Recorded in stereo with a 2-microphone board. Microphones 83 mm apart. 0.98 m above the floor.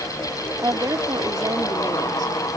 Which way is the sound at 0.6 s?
50° right (ahead or behind).